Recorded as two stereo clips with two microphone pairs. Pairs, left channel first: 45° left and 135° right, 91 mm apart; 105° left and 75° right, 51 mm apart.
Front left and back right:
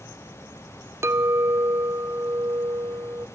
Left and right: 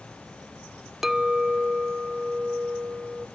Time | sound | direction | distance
1.0 | a clink | 150° right | 0.9 m